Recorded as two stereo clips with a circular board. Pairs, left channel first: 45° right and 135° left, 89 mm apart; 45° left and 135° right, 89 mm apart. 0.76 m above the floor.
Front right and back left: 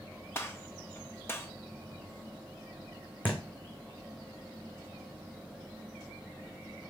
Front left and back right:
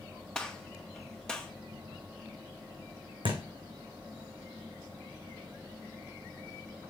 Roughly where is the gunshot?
Ahead right.